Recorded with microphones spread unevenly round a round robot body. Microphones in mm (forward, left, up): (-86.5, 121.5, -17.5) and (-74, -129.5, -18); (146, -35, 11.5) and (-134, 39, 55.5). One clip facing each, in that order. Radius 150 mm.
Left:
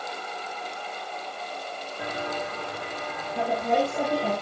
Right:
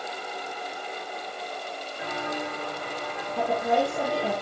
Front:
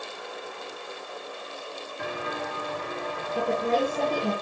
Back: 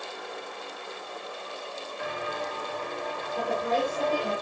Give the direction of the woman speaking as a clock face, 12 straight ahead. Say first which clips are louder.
Even, front 3 dB; 11 o'clock.